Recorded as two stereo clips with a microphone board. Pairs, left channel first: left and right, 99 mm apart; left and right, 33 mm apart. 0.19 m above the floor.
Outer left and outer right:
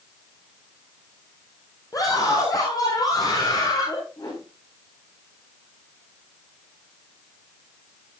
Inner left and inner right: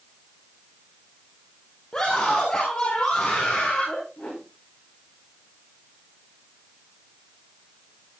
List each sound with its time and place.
1.9 s a scream: 35° left (ahead or behind), 5.5 m; by 4.0 s 40° left (ahead or behind), 6.5 m
4.2 s a whoosh: 45° left (ahead or behind), 10 m